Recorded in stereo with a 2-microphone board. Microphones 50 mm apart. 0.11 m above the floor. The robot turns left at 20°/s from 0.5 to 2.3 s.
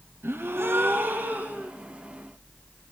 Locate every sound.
0.2 s a gasp: 50° right (ahead or behind), 4 m; by 1.7 s 30° right (ahead or behind), 4 m